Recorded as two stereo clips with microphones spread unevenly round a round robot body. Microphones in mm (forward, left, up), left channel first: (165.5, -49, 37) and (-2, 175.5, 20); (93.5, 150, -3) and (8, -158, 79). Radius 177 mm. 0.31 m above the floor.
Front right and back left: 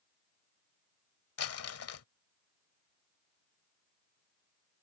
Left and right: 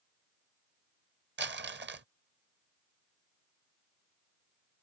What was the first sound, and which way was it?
Crumpling, 45° right.